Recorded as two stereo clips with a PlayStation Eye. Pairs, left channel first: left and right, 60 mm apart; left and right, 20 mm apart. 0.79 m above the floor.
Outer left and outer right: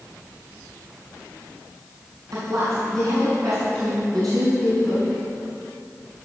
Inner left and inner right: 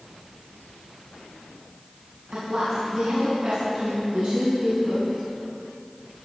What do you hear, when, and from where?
2.3 s a woman speaking: 70° right (ahead or behind), 6 m